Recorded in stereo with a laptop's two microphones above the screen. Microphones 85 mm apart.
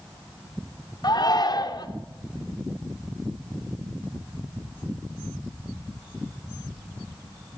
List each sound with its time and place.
1.0 s a shout: 50° left (ahead or behind), 3.5 m